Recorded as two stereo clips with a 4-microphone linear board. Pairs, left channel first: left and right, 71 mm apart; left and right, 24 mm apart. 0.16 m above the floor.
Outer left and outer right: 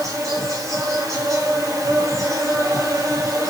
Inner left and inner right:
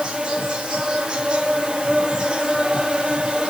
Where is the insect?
45° right (ahead or behind), 6 m.